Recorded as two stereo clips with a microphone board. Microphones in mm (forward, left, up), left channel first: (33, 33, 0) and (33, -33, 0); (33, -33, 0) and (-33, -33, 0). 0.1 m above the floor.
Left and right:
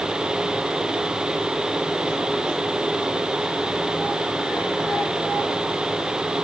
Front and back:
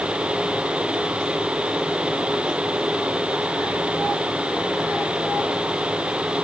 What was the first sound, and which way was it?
Only background noise.